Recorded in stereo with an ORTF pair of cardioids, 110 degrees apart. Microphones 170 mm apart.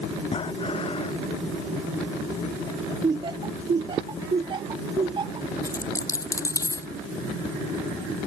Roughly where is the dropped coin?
Ahead.